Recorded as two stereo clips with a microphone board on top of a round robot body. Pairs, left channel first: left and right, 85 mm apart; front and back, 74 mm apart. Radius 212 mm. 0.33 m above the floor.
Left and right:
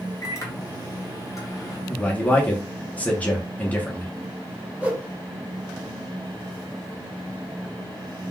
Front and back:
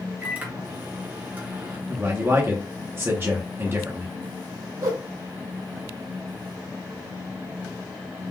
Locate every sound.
0.2 s a microwave: 125° left, 1.1 m
1.9 s a man speaking: 150° left, 1.1 m
4.8 s a whoosh: 160° right, 1.7 m